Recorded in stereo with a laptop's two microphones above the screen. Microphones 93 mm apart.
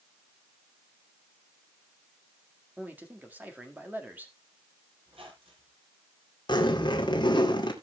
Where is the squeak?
80° right, 4 m.